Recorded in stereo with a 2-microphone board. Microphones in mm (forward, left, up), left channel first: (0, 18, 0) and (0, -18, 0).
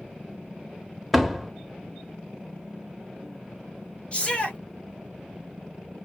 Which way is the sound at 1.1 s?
Centre (ahead or behind).